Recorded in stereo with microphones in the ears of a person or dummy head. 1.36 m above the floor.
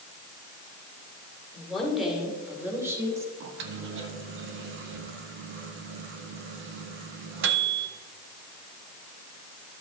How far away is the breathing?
I don't hear breathing.